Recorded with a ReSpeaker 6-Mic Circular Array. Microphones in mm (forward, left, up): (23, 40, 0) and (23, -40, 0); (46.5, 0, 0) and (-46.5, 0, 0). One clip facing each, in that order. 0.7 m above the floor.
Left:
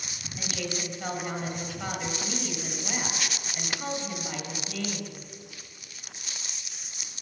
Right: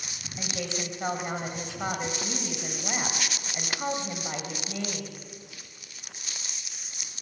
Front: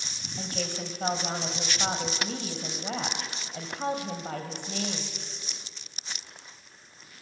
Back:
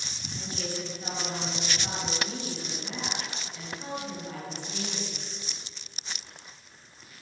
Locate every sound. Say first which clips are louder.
0.4 s a woman speaking: even, front 1 dB; 25° right, 3 m